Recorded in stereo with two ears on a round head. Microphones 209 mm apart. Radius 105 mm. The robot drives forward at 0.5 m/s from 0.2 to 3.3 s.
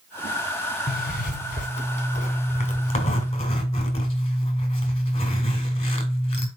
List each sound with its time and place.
0.9 s a zipper: 40° left (ahead or behind), 1.3 m; by 6.5 s 25° left (ahead or behind), 1.9 m